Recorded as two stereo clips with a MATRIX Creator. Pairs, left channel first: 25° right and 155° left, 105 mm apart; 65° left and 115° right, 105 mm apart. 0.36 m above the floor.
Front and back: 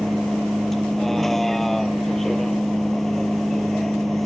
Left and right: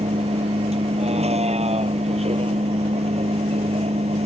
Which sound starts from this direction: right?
A vehicle, at 0.0 s.